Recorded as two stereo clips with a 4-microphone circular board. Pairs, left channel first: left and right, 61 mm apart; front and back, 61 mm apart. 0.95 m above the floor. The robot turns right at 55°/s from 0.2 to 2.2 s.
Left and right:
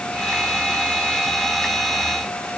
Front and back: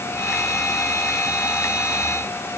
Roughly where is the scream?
I don't hear a scream.